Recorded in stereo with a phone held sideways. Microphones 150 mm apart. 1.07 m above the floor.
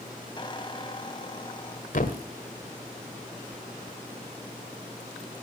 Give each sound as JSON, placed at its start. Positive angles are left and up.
{"t": 0.4, "sound": "a squeak", "side_deg": 35, "distance_m": 1.7}
{"t": 1.9, "sound": "a thud", "side_deg": 65, "distance_m": 1.5}